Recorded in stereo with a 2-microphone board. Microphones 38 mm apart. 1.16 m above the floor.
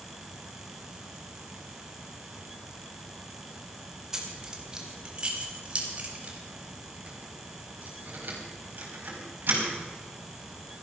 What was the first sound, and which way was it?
Keys jangling, 15° right (ahead or behind).